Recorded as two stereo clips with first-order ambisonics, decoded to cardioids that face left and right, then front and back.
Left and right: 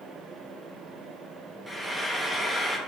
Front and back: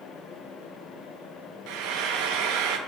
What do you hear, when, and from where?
1.7 s frying: 175° right, 0.6 m